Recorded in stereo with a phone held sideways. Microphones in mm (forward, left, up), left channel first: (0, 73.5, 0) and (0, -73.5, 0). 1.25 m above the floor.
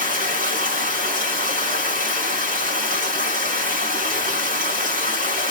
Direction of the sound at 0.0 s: 70° right (ahead or behind).